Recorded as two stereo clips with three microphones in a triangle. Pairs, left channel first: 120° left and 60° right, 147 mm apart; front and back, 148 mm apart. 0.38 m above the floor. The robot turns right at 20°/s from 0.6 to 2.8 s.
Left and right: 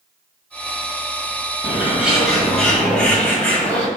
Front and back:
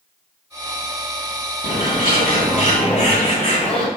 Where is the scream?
I don't hear a scream.